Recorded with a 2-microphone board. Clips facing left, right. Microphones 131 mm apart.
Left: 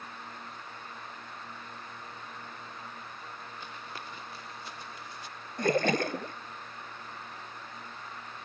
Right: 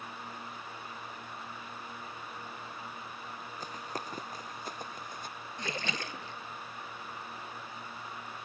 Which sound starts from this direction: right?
Running footsteps, at 3.6 s.